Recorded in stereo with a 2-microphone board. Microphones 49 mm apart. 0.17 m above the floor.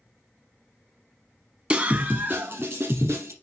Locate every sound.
1.7 s a scream: 20° right (ahead or behind), 1.1 m; by 3.3 s 60° right (ahead or behind), 2 m